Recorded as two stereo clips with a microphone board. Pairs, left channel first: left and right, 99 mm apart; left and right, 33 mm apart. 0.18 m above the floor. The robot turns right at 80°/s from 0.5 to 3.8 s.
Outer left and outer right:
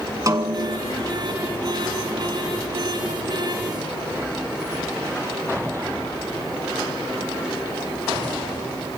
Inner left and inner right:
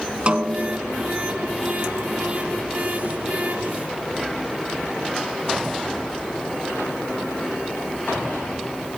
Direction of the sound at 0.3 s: 65° right.